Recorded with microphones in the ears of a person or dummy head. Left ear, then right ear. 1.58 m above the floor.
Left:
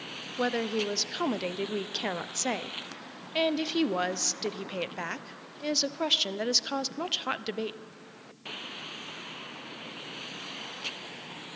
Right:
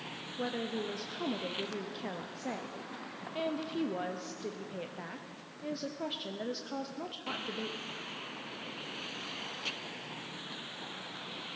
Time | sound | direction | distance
0.4 | a woman speaking | 45° left (ahead or behind) | 0.5 m